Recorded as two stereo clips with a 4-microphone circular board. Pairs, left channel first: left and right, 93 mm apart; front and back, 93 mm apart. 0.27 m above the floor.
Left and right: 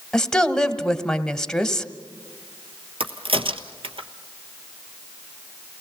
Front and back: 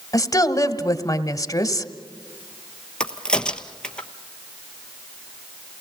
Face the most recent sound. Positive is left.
turn(degrees=-80)